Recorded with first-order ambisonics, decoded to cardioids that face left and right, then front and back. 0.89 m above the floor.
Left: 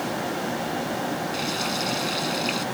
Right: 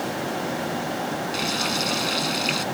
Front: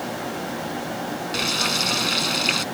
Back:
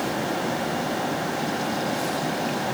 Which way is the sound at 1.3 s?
15° right.